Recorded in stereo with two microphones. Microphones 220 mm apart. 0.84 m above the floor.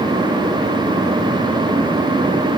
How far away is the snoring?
No snoring in this recording.